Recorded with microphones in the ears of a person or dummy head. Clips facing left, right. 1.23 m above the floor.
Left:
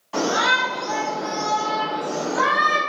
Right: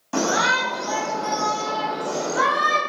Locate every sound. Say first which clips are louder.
0.1 s a shout: even; 50° right (ahead or behind), 1.8 m; by 2.8 s 65° right (ahead or behind), 3 m